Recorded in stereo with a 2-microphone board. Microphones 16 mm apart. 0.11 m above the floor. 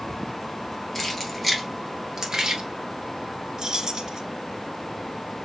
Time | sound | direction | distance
0.9 | keys jangling | 15° left (ahead or behind) | 1.7 m
3.6 | keys jangling | 40° right (ahead or behind) | 1.2 m